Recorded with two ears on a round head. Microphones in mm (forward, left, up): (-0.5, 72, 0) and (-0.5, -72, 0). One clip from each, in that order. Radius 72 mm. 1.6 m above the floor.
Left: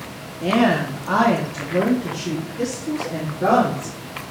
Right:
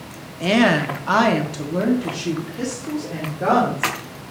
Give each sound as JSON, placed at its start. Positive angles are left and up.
{"t": 0.4, "sound": "a woman speaking", "side_deg": -45, "distance_m": 0.9}